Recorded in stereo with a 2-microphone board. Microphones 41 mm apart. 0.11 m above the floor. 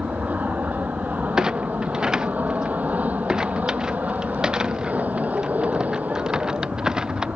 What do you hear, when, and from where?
0.0 s an aircraft: 40° right (ahead or behind)
1.4 s a clunk: 20° right (ahead or behind)